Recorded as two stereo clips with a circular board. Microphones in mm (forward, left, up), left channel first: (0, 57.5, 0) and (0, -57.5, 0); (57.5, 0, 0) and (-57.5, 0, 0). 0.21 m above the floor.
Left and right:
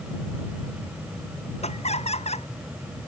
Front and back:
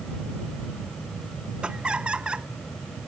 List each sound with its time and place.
1.6 s laughter: 100° left